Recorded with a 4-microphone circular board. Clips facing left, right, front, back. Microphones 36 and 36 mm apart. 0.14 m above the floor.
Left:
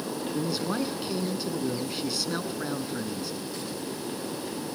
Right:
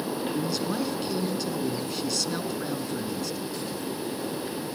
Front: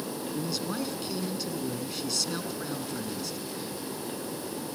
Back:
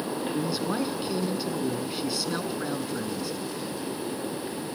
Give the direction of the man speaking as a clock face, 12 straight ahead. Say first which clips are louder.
Left 2 dB, back 4 dB; 7 o'clock.